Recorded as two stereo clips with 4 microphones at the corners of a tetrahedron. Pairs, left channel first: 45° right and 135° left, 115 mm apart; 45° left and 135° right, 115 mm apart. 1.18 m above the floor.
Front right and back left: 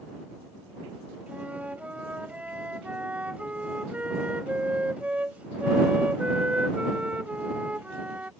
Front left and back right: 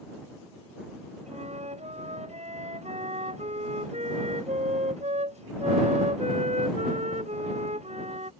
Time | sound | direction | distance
1.3 | a flute | 145° right | ?